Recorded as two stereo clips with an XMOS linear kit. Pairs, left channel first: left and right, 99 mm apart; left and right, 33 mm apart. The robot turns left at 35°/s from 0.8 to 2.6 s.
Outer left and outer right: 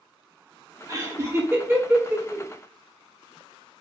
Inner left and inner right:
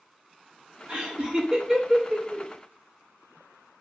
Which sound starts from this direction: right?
Laughter, at 0.9 s.